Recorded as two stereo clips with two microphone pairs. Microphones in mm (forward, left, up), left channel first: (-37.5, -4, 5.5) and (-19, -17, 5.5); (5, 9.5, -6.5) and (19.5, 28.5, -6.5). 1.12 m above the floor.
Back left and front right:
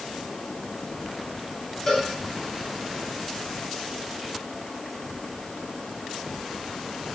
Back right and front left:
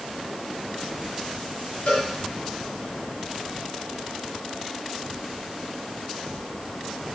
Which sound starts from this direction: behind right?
A cowbell, at 1.9 s.